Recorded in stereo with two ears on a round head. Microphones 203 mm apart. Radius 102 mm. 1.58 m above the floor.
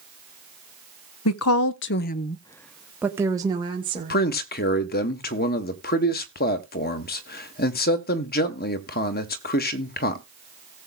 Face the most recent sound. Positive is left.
turn(degrees=40)  # may be behind; listen again after turning